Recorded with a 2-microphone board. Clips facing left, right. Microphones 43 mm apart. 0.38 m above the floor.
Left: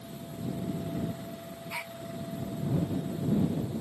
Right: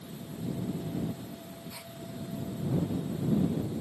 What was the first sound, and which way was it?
A gasp, 60° left (ahead or behind).